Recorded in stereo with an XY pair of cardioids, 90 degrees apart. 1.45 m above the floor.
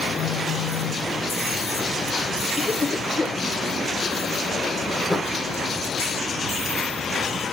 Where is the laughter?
25° left, 4 m.